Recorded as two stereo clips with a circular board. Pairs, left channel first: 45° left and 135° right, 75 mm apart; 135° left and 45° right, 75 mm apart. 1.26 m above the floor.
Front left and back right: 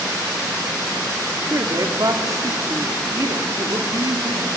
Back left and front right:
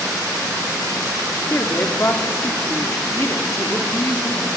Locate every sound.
1.5 s a woman speaking: 170° right, 2 m